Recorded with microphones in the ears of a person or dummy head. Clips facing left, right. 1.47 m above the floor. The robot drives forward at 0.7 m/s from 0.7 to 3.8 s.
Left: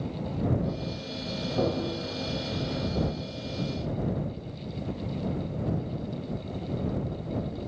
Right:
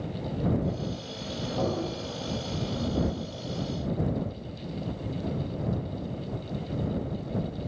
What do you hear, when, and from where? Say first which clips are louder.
1.6 s tapping: left 2 dB; 30° left (ahead or behind), 2.5 m